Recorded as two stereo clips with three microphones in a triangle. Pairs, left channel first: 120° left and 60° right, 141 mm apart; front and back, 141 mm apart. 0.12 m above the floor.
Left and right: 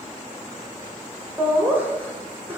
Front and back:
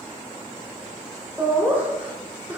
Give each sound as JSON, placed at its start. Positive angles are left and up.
{"t": 1.4, "sound": "laughter", "azimuth_deg": -115, "distance_m": 1.4}